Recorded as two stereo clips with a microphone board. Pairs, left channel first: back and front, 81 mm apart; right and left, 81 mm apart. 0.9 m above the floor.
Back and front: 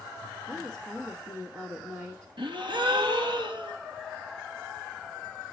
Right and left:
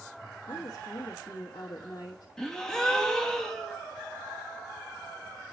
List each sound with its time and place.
0.5 s a woman speaking: 75° right, 1.3 m
2.4 s a gasp: 10° right, 0.9 m